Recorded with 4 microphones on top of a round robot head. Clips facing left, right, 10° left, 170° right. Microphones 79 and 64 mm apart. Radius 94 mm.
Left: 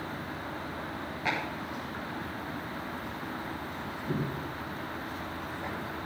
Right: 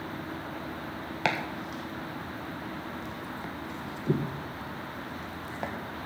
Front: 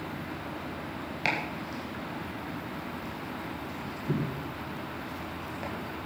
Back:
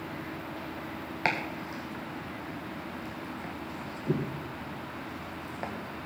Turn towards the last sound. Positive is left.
turn(degrees=-110)